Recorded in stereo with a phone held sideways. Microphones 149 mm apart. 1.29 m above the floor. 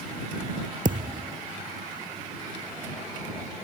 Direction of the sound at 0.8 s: 65° right (ahead or behind).